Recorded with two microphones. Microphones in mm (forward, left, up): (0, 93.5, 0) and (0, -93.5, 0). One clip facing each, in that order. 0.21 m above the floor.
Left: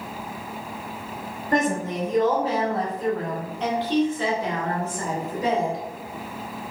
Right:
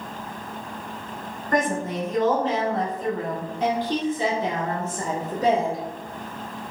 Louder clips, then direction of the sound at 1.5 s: Left 1 dB; 25° left (ahead or behind).